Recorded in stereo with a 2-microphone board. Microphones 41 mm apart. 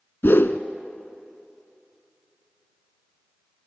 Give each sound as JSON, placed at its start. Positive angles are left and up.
{"t": 0.2, "sound": "a whoosh", "side_deg": 65, "distance_m": 0.7}